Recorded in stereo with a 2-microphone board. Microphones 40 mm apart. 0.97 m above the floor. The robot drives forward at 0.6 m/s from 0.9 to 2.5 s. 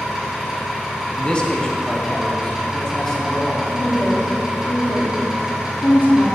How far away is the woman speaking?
About 1.6 m.